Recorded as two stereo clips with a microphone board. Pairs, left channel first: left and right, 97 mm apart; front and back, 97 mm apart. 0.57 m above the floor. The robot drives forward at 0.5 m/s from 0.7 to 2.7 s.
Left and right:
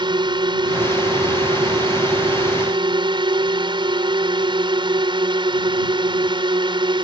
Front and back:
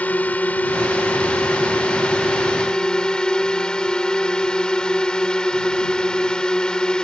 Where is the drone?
70° right; by 7.0 s 80° right.